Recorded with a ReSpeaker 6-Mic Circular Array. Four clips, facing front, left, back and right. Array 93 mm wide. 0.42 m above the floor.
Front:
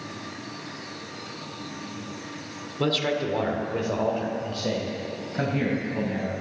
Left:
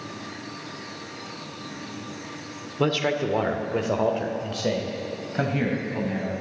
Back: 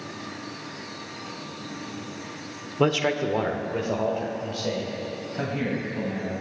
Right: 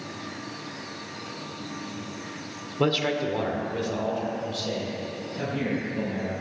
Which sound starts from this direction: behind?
A man speaking, at 2.8 s.